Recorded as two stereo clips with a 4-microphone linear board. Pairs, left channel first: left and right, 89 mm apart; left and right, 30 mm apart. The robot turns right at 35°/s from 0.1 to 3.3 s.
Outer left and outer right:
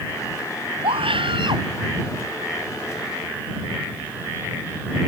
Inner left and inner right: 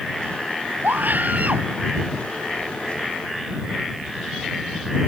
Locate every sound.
0.8 s a scream: 85° right; by 1.7 s 55° right (ahead or behind)